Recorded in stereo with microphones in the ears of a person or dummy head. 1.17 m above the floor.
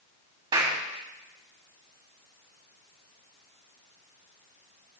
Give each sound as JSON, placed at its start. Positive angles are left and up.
{"t": 0.5, "sound": "a clap", "side_deg": -25, "distance_m": 2.0}